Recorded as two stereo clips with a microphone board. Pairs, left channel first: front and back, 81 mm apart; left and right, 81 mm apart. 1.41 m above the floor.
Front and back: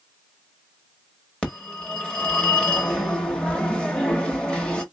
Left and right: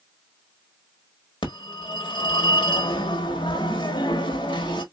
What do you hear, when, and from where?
1.4 s a phone ringing: 80° left, 1.5 m